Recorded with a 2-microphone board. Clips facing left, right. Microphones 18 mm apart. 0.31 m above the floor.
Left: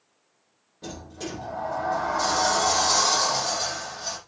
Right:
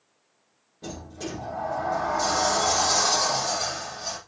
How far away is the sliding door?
About 5.5 m.